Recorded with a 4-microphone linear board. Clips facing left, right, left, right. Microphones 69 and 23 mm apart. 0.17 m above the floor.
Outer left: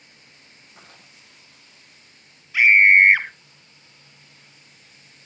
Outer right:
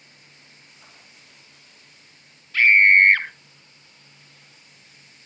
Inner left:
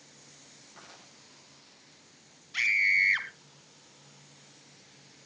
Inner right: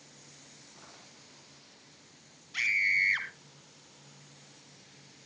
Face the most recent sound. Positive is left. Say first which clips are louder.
# outer left 1 dB, inner left 2 dB
turn(degrees=15)  # may be behind; listen again after turning